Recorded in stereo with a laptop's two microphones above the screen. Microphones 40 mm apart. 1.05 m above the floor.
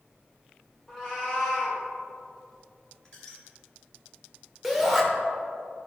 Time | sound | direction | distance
0.9 | a cat meowing | 5° left (ahead or behind) | 2 m
3.0 | a squeak | 20° left (ahead or behind) | 1.4 m
4.6 | a shout | centre (ahead or behind) | 1.1 m